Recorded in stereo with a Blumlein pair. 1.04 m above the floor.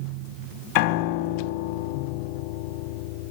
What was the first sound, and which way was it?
A piano, 40° left.